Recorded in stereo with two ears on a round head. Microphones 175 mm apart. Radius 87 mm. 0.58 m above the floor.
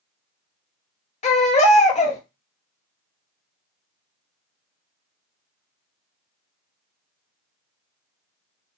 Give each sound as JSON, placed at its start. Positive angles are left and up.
{"t": 1.2, "sound": "a baby crying", "side_deg": 35, "distance_m": 0.7}